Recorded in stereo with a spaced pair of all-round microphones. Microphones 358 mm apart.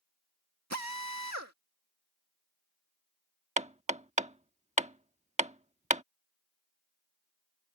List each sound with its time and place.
0.7 s a drill: 45° right (ahead or behind)
3.6 s hammering: 20° right (ahead or behind)